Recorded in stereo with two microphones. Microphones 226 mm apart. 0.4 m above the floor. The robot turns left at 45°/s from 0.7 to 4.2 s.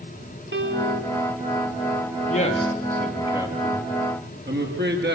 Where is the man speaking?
35° left, 6 m; by 5.2 s 50° right, 6 m.